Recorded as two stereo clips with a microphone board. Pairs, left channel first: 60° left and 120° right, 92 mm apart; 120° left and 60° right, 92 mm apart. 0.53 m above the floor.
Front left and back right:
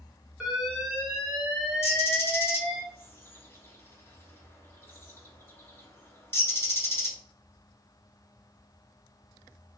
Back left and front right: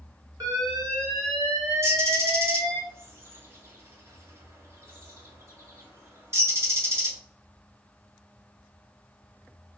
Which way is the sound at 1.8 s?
Straight ahead.